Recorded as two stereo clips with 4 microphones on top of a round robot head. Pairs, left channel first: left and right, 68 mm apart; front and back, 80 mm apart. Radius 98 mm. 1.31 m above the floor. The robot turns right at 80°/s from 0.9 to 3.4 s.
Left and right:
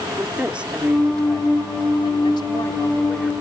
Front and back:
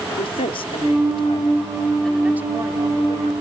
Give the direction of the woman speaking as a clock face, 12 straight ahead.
12 o'clock.